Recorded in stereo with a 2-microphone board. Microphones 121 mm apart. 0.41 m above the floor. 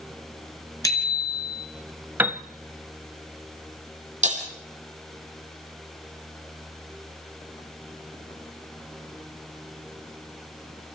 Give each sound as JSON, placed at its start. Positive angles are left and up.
{"t": 0.8, "sound": "a bicycle bell", "side_deg": 25, "distance_m": 4.0}
{"t": 2.2, "sound": "a piano", "side_deg": -15, "distance_m": 0.7}
{"t": 4.2, "sound": "breaking glass", "side_deg": -75, "distance_m": 4.0}